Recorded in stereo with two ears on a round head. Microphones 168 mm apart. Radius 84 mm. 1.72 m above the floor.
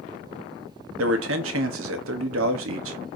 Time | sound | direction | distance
1.0 | a man speaking | 85° right | 1.5 m